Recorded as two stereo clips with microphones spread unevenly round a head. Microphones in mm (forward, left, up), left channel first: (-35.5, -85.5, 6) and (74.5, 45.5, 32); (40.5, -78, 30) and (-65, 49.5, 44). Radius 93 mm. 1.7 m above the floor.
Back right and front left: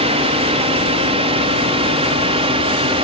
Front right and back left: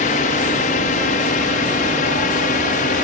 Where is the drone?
5° right.